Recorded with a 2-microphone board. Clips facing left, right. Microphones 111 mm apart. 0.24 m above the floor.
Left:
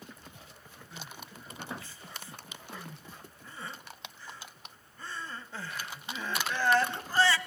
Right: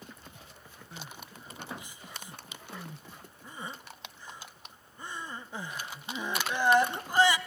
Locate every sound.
0.9 s crying: 15° right (ahead or behind), 0.7 m